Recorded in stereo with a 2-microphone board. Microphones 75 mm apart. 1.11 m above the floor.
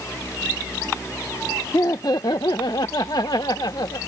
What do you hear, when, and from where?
1.7 s laughter: 50° left (ahead or behind); by 4.0 s 70° left (ahead or behind)